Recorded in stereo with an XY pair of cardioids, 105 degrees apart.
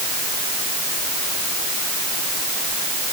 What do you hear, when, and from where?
Only background noise.